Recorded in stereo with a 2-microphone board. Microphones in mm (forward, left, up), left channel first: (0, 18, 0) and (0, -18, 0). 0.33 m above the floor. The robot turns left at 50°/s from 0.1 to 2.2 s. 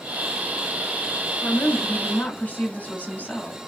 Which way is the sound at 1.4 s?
90° left.